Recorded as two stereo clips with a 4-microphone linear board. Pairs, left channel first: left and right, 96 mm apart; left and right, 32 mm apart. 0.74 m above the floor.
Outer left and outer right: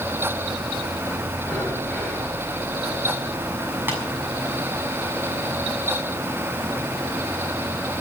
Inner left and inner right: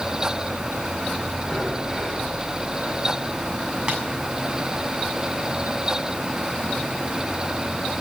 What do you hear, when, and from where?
1.4 s breathing: 10° left (ahead or behind), 5.5 m
3.9 s tapping: 25° right (ahead or behind), 6.5 m